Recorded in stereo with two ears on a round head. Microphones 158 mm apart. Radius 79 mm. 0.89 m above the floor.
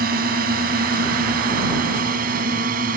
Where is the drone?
55° right (ahead or behind); by 3.0 s 50° right (ahead or behind).